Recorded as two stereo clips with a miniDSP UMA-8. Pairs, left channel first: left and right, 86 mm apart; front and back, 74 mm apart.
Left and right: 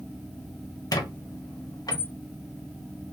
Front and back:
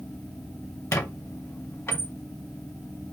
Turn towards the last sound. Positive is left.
turn(degrees=55)